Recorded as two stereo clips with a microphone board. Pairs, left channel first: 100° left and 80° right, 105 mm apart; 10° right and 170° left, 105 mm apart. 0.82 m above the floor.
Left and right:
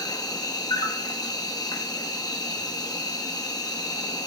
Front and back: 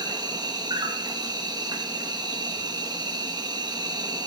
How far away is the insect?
About 0.9 m.